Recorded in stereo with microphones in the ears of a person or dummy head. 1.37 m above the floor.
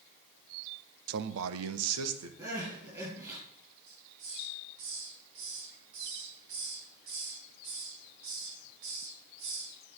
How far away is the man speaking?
About 0.8 m.